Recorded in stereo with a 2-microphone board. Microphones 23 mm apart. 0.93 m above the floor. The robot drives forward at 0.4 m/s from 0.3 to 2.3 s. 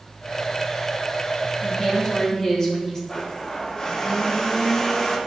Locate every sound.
1.6 s a woman speaking: 35° left (ahead or behind), 1.7 m; by 3.0 s 30° left (ahead or behind), 1.9 m
3.1 s a blender: 30° left (ahead or behind), 1.0 m